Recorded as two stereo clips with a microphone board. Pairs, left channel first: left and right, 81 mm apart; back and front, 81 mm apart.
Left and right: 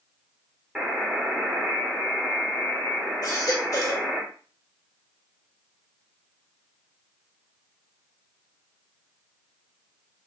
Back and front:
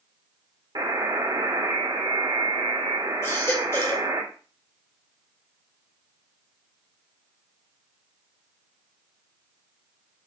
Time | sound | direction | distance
0.8 | a buzzer | 10° right | 2 m
3.2 | a baby crying | 130° left | 2 m